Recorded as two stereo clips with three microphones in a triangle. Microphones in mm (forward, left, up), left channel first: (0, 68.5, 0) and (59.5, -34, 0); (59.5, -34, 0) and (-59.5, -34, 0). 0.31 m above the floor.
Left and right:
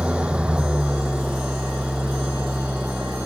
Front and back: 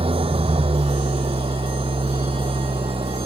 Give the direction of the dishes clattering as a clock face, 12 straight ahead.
No dishes clattering in this recording.